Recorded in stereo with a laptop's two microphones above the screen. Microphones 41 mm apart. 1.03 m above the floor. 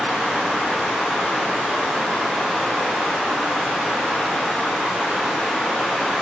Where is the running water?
10° right (ahead or behind), 3.5 m.